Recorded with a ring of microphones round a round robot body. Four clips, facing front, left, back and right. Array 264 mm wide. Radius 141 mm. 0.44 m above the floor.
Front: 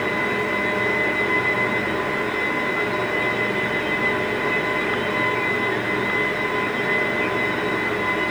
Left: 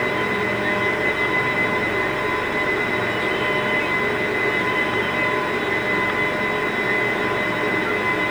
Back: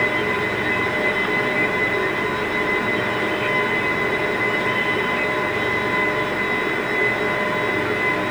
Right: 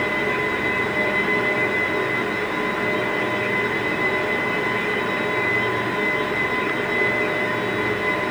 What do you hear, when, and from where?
Only background noise.